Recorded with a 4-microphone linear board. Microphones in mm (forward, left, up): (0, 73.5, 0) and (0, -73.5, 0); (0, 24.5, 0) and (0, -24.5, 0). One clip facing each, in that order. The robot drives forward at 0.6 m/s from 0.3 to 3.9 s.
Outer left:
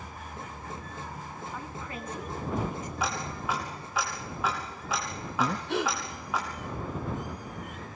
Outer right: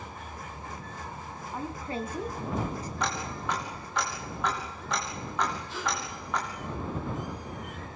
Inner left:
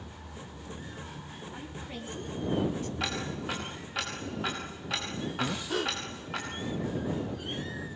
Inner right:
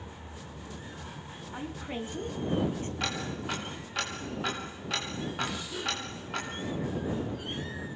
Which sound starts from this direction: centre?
Ticking, at 3.0 s.